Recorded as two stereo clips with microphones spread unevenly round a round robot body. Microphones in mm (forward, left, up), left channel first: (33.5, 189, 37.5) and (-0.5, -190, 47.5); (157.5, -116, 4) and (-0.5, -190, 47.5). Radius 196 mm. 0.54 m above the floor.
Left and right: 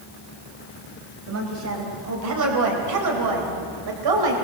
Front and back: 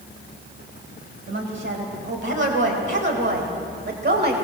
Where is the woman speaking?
150° right, 3.5 m; by 4.4 s 120° right, 3 m.